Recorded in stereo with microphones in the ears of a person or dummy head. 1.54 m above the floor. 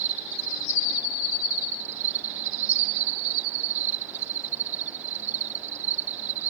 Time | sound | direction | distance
0.0 | an insect | 45° right (ahead or behind) | ?